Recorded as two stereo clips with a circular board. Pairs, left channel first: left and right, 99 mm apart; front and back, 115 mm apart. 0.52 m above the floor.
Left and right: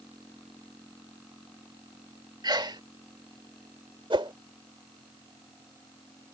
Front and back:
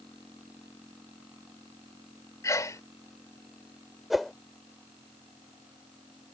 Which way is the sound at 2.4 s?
55° right.